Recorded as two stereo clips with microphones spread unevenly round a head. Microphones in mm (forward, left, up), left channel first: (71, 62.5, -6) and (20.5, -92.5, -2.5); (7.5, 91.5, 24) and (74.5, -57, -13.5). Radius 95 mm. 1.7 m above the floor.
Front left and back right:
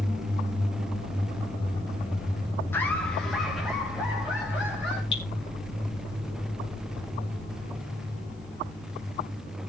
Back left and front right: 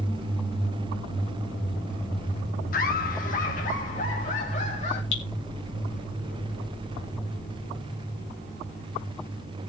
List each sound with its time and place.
2.7 s laughter: 150° left, 1.1 m; by 5.0 s 170° left, 4.5 m
5.1 s dripping: 140° left, 2.5 m